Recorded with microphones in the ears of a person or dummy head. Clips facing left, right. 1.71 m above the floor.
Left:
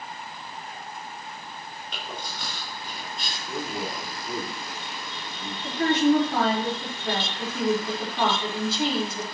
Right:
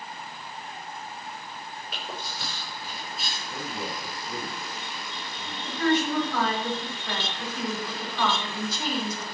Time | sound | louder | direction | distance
1.9 | chewing | left 1 dB | 5° right (ahead or behind) | 6 m
3.5 | a man speaking | left 4 dB | 35° left (ahead or behind) | 4.5 m
5.6 | a woman speaking | left 4 dB | 30° left (ahead or behind) | 5 m